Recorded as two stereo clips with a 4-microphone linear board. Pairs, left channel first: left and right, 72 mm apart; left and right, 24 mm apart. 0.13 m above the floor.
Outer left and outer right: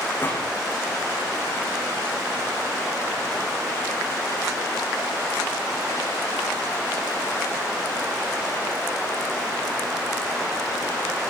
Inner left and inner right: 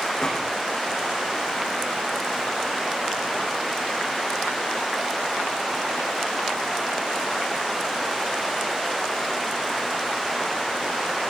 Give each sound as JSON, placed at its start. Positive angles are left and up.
{"t": 0.2, "sound": "a gunshot", "side_deg": 25, "distance_m": 9.0}